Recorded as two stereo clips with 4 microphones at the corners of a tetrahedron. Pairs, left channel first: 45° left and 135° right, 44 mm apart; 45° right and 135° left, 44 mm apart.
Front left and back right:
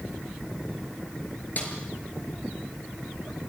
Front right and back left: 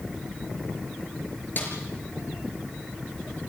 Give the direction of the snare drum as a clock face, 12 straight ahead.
12 o'clock.